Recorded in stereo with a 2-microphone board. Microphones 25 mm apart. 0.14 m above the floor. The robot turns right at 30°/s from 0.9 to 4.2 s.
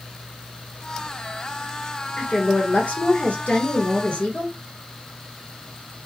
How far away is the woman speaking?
About 1.9 m.